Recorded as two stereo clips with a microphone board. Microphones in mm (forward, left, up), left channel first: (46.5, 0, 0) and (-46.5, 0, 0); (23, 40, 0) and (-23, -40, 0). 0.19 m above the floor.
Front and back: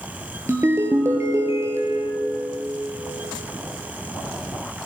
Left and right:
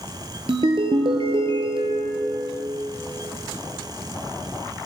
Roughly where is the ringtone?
Behind right.